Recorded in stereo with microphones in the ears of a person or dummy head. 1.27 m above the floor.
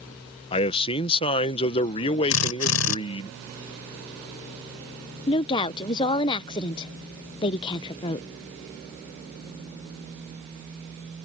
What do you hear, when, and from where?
0.5 s a man speaking: 30° left (ahead or behind)
2.3 s a drill: 80° left
5.3 s a woman speaking: 25° left (ahead or behind)